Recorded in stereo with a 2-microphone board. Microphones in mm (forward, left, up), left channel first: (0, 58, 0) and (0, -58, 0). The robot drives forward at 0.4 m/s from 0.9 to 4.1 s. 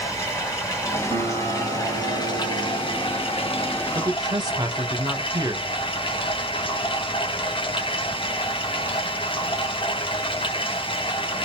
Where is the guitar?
50° right (ahead or behind), 0.9 m.